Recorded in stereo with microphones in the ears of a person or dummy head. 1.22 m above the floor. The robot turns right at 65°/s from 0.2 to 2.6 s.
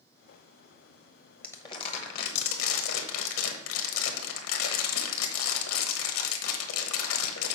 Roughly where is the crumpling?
Ahead.